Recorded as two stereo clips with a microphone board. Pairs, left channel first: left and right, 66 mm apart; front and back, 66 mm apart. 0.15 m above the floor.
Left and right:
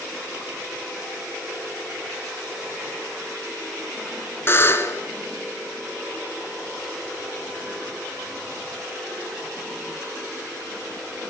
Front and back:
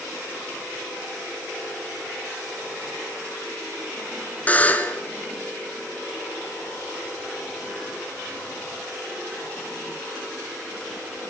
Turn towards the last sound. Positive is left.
turn(degrees=55)